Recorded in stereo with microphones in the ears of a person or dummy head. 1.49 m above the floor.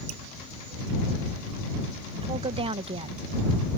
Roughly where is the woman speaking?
Right.